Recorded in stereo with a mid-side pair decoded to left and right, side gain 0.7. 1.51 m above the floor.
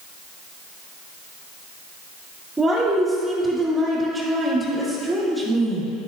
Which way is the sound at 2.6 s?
15° right.